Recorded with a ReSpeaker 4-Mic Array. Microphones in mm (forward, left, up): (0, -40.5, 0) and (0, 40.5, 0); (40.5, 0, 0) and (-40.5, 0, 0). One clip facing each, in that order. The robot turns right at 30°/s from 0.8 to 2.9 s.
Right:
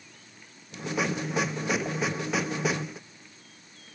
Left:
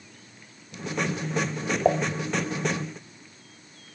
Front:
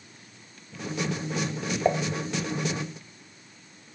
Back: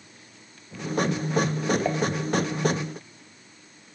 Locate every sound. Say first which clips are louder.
1.9 s dishes clattering: left 9 dB, front 1 dB; 75° left; by 2.0 s 80° left